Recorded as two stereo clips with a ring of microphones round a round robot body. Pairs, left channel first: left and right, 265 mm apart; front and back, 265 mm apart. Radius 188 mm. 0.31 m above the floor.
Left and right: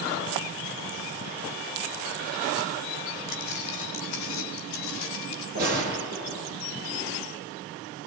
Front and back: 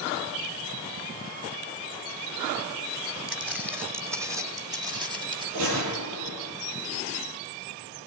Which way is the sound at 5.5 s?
155° right.